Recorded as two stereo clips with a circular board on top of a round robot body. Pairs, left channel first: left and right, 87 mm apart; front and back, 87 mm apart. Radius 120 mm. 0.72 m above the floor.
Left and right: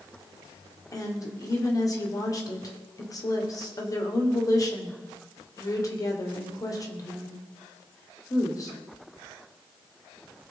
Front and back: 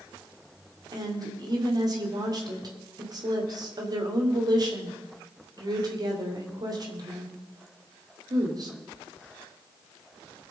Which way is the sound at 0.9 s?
140° left.